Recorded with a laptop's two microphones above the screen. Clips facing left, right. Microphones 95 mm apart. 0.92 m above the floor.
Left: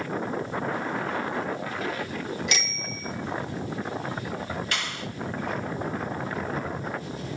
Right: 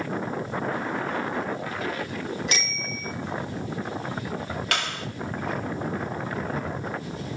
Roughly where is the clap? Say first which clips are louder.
Right 3 dB; right.